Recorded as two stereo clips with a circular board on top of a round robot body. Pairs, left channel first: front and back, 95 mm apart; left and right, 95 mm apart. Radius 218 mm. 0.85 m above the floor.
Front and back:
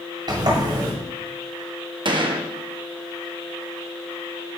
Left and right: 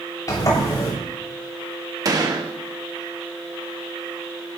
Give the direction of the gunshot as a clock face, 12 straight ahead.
5 o'clock.